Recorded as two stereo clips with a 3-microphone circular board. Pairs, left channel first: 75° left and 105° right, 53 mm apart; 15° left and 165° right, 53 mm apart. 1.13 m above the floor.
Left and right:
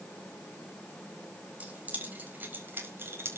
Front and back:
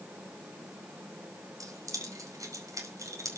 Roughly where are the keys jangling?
Behind.